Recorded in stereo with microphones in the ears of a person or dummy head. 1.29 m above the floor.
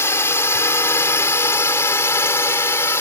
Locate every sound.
0.0 s a drone: 15° left (ahead or behind)